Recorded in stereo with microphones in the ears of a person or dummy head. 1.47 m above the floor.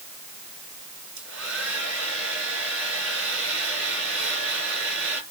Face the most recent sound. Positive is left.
turn(degrees=-75)  # may be behind; listen again after turning